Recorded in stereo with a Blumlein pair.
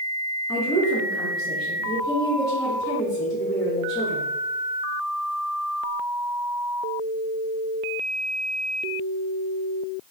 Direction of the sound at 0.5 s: 10° left.